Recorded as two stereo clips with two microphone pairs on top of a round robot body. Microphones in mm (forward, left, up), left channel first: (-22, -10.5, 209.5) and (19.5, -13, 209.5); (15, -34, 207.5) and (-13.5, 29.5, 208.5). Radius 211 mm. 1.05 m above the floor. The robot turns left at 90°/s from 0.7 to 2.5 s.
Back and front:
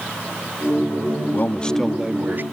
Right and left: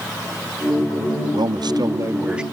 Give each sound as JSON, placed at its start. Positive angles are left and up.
{"t": 1.3, "sound": "a man speaking", "azimuth_deg": 135}